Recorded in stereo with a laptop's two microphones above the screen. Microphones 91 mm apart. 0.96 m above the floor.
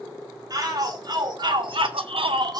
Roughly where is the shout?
Right.